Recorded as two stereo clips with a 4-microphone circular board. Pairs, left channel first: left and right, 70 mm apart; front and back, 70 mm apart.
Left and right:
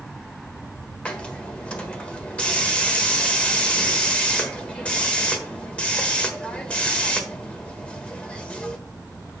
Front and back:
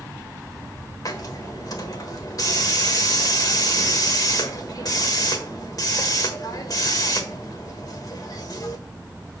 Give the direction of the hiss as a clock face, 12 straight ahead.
11 o'clock.